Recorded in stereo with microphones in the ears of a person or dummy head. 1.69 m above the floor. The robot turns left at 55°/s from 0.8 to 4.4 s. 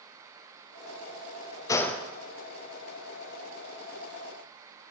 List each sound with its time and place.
1.7 s a gunshot: 20° left (ahead or behind), 0.6 m; by 2.1 s centre (ahead or behind), 0.6 m